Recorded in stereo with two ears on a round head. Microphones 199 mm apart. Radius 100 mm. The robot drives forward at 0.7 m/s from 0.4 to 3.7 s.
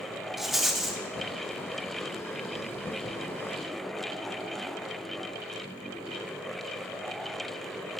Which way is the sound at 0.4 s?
Centre (ahead or behind).